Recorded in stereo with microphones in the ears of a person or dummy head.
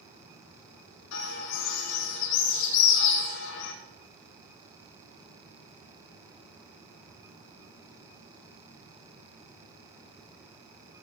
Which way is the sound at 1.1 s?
65° left (ahead or behind).